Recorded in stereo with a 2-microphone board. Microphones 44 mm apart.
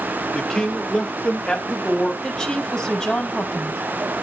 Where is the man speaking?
10° left (ahead or behind), 1.3 m; by 2.1 s 20° left (ahead or behind), 1.6 m.